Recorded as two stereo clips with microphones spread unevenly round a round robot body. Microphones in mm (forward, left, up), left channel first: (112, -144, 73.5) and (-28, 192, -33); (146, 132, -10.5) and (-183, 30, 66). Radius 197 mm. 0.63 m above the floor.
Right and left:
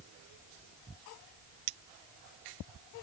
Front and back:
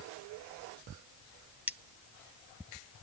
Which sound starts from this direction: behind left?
Cutlery clinking, at 1.7 s.